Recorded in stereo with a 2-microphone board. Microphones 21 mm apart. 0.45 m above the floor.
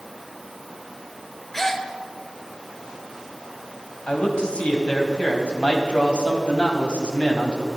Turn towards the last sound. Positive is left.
turn(degrees=65)  # may be behind; listen again after turning